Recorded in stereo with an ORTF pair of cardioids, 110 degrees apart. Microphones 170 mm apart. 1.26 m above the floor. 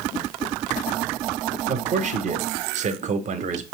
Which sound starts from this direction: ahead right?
A man speaking, at 1.7 s.